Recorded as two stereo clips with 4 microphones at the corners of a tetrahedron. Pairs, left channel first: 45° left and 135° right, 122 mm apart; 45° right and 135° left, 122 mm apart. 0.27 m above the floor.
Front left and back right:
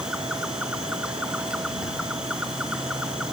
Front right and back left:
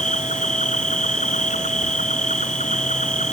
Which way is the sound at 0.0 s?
50° right.